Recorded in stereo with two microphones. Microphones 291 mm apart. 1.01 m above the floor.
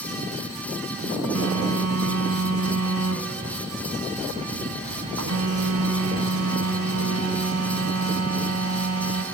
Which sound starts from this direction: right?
A phone buzzing, at 1.4 s.